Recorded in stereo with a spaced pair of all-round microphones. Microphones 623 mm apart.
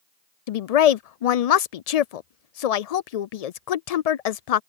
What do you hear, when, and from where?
0.5 s a woman speaking: 75° left (ahead or behind)